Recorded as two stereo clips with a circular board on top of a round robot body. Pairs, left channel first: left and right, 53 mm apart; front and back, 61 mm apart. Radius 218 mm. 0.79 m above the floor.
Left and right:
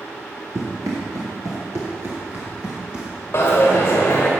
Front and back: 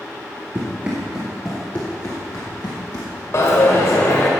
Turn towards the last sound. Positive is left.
turn(degrees=40)